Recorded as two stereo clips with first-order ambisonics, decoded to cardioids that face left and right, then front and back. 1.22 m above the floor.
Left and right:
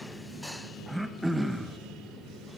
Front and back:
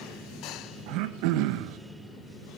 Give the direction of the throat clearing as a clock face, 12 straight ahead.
6 o'clock.